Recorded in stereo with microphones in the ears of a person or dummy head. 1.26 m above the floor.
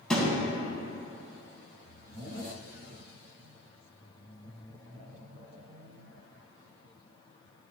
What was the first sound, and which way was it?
A thud, 5° left (ahead or behind).